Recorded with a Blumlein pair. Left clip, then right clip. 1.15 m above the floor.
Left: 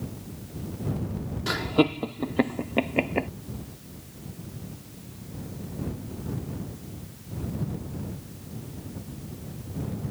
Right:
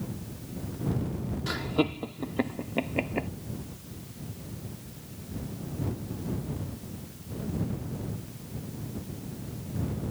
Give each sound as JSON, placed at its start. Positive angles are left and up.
{"t": 1.5, "sound": "laughter", "azimuth_deg": 15}